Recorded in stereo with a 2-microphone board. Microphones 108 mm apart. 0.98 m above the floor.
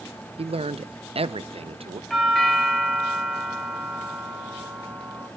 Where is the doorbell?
Centre (ahead or behind), 1.7 m.